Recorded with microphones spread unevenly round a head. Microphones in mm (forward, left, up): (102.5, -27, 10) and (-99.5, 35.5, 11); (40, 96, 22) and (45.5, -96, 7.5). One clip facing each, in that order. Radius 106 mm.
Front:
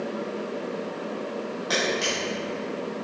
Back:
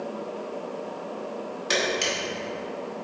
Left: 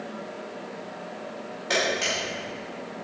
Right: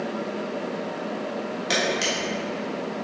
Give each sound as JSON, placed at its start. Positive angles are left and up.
{"t": 1.7, "sound": "a camera shutter", "azimuth_deg": -140, "distance_m": 2.0}